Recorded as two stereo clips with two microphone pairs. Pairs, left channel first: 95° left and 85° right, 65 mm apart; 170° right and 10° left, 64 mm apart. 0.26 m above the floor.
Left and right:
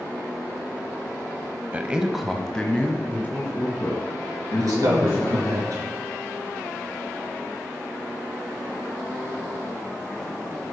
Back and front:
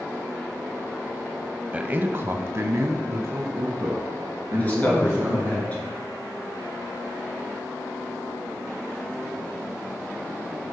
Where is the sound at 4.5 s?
105° right, 3.5 m.